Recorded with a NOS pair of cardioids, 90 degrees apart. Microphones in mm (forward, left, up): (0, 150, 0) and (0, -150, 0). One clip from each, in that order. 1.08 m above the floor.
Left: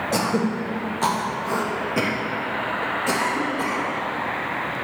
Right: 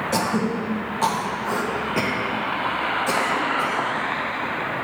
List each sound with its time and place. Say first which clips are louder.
0.1 s throat clearing: even; straight ahead, 1.1 m